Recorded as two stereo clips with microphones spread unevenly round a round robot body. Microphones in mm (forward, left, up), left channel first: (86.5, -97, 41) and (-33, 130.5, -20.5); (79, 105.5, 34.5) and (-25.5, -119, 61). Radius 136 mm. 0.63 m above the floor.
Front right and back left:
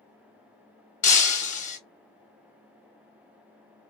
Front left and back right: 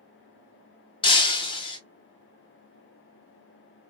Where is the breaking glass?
5° right, 0.8 m.